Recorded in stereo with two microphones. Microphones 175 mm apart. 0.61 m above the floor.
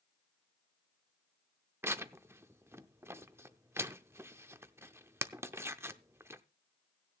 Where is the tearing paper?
15° right (ahead or behind), 0.5 m.